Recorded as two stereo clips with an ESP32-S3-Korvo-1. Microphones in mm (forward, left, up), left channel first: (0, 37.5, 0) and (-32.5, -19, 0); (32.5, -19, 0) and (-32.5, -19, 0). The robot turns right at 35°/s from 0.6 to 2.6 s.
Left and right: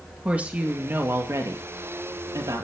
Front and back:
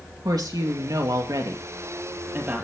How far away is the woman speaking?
About 2.5 m.